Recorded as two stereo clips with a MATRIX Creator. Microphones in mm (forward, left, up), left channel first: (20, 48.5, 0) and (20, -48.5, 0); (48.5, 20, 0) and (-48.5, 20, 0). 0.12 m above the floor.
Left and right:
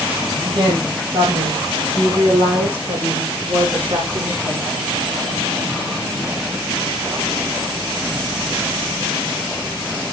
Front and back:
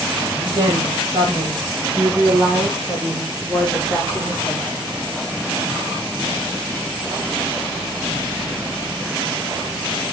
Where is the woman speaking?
130° right, 4.5 m; by 4.8 s 65° right, 3.5 m.